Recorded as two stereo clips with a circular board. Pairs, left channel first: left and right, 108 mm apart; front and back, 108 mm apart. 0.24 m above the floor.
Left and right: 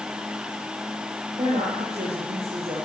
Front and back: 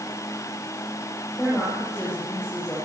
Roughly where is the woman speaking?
Right.